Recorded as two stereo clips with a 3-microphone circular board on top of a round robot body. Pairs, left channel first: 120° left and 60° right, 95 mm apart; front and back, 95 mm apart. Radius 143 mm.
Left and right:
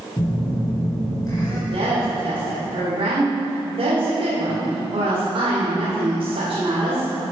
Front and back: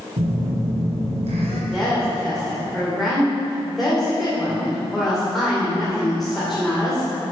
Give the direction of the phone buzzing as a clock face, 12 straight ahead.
6 o'clock.